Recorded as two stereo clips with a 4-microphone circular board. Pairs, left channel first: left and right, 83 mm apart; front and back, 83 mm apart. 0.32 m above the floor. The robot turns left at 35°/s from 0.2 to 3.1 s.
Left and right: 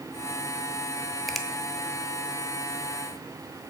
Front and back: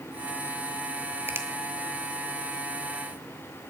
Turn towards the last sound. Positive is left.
turn(degrees=120)